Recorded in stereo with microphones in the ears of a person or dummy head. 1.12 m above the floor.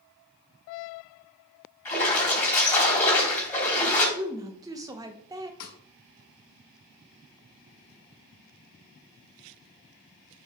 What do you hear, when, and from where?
1.9 s a splash: 10° left (ahead or behind), 3.5 m
4.2 s a woman speaking: 15° right (ahead or behind), 0.8 m
5.6 s a snare drum: 75° left (ahead or behind), 1.4 m